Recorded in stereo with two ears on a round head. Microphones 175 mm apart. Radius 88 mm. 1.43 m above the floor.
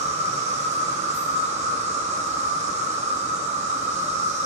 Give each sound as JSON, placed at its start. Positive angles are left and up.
{"t": 0.0, "sound": "an insect", "side_deg": -35, "distance_m": 1.3}